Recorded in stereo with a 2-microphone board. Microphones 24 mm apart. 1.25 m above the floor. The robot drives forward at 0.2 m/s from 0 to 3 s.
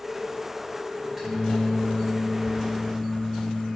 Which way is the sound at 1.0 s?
10° right (ahead or behind).